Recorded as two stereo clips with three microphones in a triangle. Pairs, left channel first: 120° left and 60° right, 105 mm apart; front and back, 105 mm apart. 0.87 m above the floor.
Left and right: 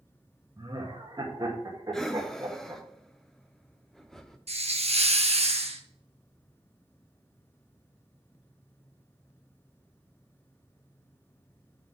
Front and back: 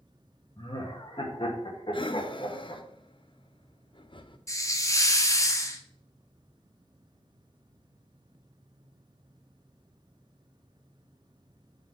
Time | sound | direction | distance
0.6 | laughter | 15° right | 1.3 m
1.9 | breathing | 35° left | 0.7 m
4.5 | a hiss | 60° right | 0.9 m